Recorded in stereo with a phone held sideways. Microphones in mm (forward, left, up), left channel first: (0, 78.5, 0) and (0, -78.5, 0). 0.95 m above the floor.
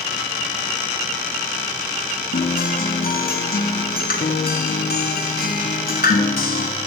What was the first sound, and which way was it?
A guitar, 75° left (ahead or behind).